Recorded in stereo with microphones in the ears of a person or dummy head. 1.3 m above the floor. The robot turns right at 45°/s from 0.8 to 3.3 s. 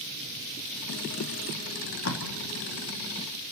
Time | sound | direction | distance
1.7 | tape being pulled | 70° left (ahead or behind) | 2.5 m